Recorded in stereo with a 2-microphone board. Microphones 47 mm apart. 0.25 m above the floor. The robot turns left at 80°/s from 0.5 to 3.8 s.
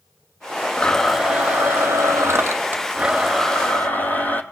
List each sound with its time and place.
0.8 s a blender: 25° left, 1.4 m; by 4.4 s 140° left, 1.4 m